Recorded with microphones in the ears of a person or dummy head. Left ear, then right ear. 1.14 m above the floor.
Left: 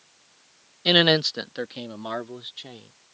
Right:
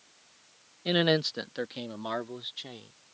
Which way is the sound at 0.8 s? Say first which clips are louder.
Left 8 dB; 40° left (ahead or behind).